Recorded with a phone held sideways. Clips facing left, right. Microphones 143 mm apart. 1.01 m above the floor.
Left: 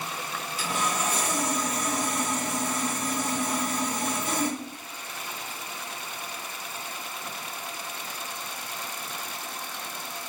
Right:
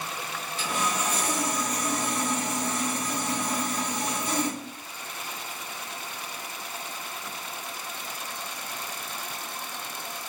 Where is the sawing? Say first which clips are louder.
Even; 5° left (ahead or behind), 1.9 m.